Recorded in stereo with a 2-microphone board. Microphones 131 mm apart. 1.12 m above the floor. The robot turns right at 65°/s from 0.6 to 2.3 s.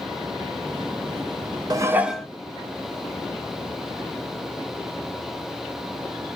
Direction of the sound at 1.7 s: 30° right.